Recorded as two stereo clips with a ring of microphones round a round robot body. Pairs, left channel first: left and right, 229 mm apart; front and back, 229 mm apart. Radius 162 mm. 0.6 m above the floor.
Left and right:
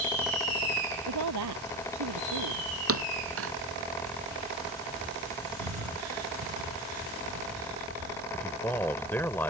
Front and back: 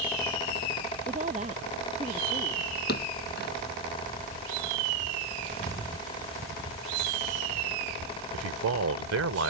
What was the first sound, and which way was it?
A woman speaking, 110° right.